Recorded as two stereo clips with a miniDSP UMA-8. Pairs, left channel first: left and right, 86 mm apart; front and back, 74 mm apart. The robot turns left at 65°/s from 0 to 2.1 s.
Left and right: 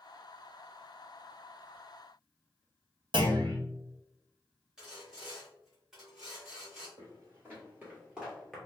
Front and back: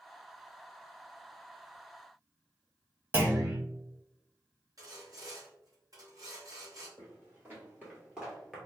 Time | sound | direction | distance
3.1 | a clunk | 115° right | 0.9 m
4.8 | sawing | 170° right | 1.3 m
7.0 | footsteps | 135° right | 1.9 m